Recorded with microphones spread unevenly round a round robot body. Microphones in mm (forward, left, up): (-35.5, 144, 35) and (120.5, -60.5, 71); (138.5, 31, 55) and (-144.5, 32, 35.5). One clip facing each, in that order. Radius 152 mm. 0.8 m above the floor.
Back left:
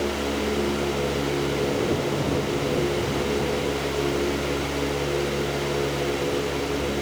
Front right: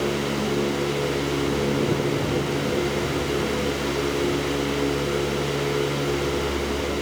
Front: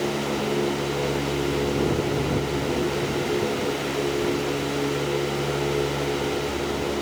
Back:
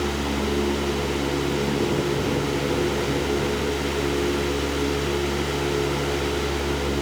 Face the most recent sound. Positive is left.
No sound to turn to.